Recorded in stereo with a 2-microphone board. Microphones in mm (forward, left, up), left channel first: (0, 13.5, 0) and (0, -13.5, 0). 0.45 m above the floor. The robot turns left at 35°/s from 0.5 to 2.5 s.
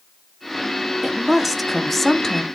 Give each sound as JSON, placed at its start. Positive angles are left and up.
{"t": 1.0, "sound": "a woman speaking", "azimuth_deg": -155, "distance_m": 1.2}